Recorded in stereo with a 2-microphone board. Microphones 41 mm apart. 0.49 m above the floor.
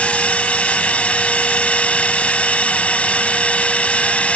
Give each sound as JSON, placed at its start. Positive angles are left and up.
{"t": 0.0, "sound": "a drone", "side_deg": 30}